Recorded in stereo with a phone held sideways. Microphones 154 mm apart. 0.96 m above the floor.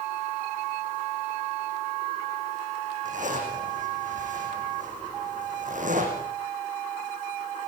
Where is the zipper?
55° right (ahead or behind), 7.5 m.